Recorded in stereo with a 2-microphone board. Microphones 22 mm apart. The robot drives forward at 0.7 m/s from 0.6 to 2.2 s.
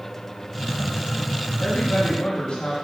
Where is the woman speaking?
80° left, 3 m; by 2.8 s 70° left (ahead or behind), 3.5 m.